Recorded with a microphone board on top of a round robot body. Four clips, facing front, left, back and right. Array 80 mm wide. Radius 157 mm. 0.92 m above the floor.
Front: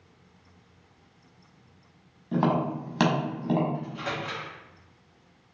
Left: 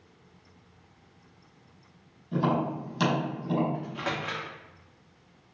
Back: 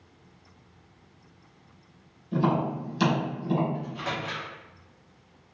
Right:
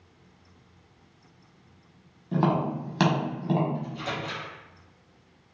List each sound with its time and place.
2.3 s tapping: 35° right, 1.2 m
3.7 s a microwave: 90° left, 1.1 m